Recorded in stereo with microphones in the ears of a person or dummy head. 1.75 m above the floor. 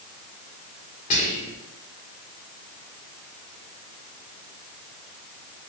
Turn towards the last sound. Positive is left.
turn(degrees=40)  # may be behind; listen again after turning